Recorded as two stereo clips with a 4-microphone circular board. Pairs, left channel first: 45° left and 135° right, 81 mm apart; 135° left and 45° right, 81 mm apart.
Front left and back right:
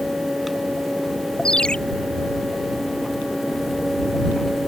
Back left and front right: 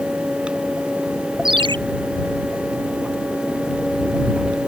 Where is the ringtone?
35° right.